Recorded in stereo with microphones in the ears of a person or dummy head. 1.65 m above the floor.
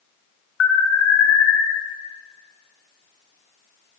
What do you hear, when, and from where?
0.6 s an alarm: 85° left, 3 m